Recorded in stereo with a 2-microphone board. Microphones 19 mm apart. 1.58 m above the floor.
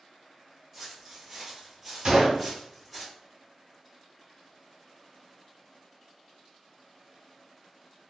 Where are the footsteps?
25° right (ahead or behind), 1.9 m; by 3.0 s 10° right (ahead or behind), 1.7 m.